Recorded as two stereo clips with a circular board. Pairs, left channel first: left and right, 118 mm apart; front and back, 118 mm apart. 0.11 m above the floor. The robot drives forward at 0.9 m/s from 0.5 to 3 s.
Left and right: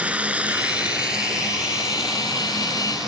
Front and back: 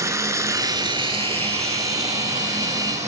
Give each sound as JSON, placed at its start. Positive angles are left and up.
{"t": 0.0, "sound": "running water", "azimuth_deg": -155, "distance_m": 0.8}